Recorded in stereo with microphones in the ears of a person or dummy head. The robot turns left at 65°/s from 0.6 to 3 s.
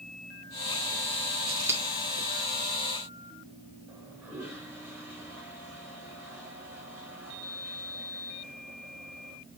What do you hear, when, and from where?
1.5 s scissors: 25° right (ahead or behind), 1.7 m; by 1.8 s 5° right (ahead or behind), 1.7 m
3.9 s a toilet flushing: 15° right (ahead or behind), 5.5 m